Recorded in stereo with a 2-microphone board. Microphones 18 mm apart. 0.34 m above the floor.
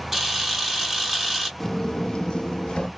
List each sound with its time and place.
0.1 s a camera shutter: 10° right (ahead or behind), 1.8 m
1.6 s footsteps: 20° left (ahead or behind), 0.6 m; by 2.9 s 60° left (ahead or behind), 0.9 m